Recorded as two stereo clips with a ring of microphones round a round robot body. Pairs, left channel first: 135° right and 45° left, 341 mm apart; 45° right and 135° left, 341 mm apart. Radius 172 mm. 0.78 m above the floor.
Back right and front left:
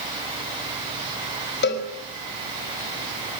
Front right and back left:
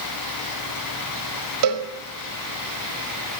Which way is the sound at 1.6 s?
165° left.